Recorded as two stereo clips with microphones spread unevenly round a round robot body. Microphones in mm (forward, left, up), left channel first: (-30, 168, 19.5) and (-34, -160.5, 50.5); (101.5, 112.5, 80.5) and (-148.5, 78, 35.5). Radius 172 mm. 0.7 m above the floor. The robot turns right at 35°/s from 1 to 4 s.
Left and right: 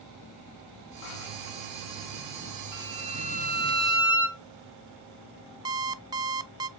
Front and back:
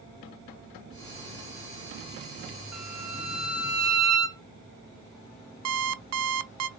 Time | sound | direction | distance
2.7 | a violin | 165° left | 3.5 m
5.7 | an alarm clock | 170° right | 0.6 m